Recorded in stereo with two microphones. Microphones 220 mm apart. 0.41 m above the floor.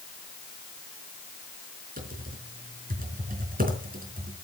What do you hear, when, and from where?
2.0 s typing on a keyboard: 40° right (ahead or behind), 4.5 m